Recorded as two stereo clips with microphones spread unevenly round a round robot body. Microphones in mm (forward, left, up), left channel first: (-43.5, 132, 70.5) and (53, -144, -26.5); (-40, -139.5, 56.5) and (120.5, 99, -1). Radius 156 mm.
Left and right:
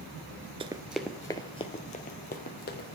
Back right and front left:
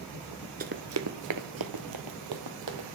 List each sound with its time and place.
0.6 s running footsteps: 25° left, 0.8 m; by 2.9 s 60° left, 2 m